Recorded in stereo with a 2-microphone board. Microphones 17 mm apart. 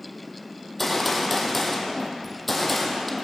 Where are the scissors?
I don't hear scissors.